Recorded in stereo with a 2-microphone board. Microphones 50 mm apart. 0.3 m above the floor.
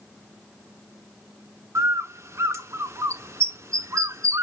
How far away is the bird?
About 0.7 m.